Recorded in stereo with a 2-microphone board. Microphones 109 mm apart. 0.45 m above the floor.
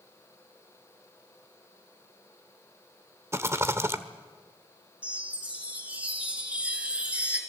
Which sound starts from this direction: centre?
A chime, at 5.0 s.